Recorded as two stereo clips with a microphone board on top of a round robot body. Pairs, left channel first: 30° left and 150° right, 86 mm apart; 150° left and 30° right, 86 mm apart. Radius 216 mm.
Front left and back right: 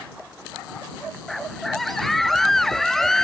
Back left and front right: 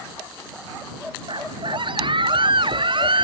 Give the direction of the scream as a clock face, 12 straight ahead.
2 o'clock.